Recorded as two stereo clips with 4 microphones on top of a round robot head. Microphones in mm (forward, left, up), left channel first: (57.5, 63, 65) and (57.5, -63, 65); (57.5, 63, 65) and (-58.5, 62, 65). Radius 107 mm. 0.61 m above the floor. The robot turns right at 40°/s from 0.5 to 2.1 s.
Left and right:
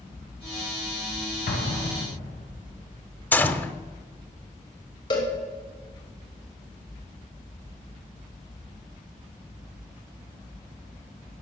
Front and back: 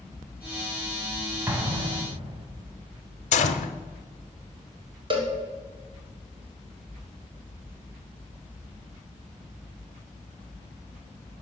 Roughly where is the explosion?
Left.